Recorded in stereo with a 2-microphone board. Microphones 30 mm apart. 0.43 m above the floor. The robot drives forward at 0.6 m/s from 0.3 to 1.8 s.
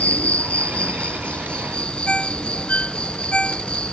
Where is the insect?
50° left (ahead or behind); by 3.9 s 35° left (ahead or behind).